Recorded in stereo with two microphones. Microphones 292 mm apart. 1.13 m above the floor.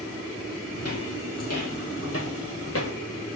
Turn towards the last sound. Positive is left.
turn(degrees=50)  # may be behind; listen again after turning